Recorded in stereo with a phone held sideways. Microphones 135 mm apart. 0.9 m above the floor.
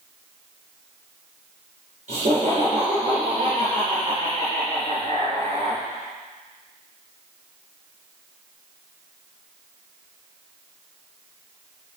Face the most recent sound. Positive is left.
turn(degrees=-60)  # may be behind; listen again after turning